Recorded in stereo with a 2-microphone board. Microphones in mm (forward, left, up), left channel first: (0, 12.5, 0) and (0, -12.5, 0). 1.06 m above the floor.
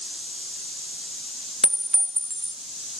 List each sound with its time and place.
1.6 s a clink: 5° left (ahead or behind), 0.5 m